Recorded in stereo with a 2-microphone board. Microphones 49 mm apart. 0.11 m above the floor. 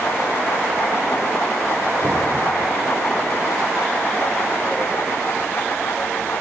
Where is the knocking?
70° right (ahead or behind), 3.5 m.